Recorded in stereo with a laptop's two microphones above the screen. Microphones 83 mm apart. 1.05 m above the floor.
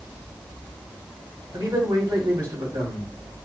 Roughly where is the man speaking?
Right.